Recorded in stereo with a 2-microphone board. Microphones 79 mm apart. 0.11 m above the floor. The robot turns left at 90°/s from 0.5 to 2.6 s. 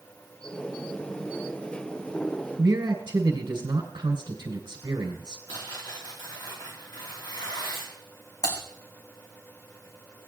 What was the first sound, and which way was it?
A man speaking, 65° right (ahead or behind).